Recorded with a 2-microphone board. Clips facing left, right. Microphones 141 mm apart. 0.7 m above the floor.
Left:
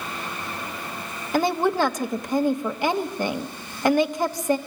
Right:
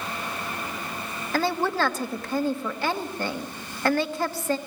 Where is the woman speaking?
15° left (ahead or behind), 1.0 m.